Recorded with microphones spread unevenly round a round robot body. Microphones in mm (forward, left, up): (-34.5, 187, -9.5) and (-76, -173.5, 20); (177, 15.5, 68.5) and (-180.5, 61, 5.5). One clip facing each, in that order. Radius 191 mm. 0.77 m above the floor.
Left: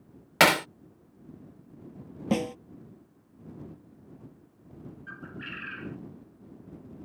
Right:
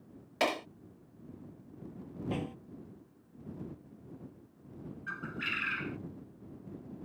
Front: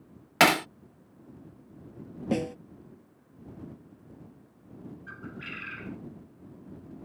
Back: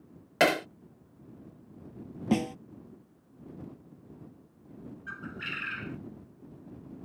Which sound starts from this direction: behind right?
A bird, at 5.1 s.